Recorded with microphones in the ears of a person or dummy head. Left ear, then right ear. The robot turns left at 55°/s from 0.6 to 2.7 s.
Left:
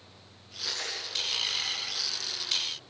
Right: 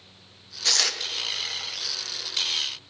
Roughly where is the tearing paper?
Right.